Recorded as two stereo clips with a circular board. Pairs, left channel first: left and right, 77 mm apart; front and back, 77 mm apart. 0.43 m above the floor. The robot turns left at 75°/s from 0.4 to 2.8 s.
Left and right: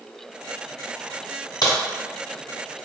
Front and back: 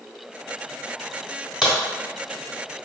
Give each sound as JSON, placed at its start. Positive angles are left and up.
{"t": 1.6, "sound": "a crack", "azimuth_deg": 95, "distance_m": 1.5}